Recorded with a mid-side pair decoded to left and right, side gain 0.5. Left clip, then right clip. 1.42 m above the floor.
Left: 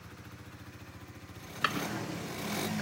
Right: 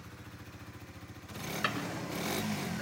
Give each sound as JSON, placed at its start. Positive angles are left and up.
{"t": 1.6, "sound": "a drawer", "azimuth_deg": 30, "distance_m": 4.0}